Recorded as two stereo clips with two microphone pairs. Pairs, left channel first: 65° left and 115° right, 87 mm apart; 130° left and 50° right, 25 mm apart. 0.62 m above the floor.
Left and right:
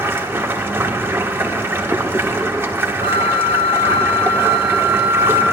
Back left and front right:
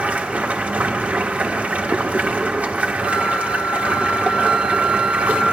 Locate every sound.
0.0 s running water: 50° right, 0.7 m
3.0 s a flute: 105° right, 1.0 m